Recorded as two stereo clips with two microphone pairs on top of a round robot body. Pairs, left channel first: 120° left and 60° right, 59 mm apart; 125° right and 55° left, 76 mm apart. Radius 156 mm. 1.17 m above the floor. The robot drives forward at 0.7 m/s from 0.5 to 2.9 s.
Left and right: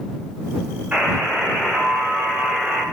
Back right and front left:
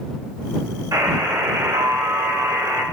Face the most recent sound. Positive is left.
turn(degrees=15)